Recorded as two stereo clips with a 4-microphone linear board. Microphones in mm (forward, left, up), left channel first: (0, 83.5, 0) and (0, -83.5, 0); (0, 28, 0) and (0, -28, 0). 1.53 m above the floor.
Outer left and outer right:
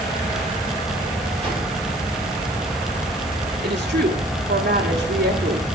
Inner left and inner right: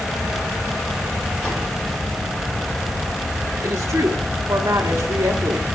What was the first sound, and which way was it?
A whoosh, 10° left (ahead or behind).